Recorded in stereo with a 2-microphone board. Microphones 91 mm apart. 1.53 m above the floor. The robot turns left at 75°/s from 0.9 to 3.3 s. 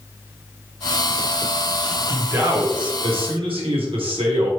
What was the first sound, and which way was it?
A man speaking, 5° right.